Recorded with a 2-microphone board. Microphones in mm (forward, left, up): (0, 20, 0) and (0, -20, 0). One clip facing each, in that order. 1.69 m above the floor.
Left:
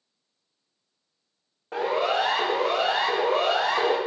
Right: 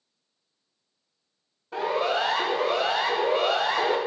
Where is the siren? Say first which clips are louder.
Left 1 dB; 80° left, 8 m.